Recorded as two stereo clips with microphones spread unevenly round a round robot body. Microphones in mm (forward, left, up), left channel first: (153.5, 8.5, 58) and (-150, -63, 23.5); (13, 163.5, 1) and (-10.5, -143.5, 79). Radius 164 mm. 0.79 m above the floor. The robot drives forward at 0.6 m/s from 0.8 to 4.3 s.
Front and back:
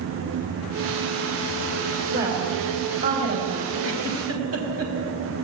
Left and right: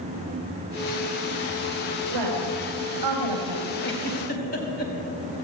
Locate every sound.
2.1 s a woman speaking: 105° right, 5 m; by 3.7 s 115° right, 5 m
3.8 s a giggle: 145° left, 4 m